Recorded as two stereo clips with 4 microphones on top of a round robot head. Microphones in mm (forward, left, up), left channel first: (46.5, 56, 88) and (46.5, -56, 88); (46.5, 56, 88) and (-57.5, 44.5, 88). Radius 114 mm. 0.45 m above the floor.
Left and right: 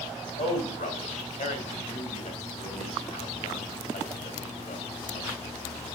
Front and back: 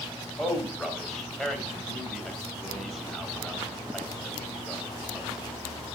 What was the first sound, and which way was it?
A man speaking, 95° left.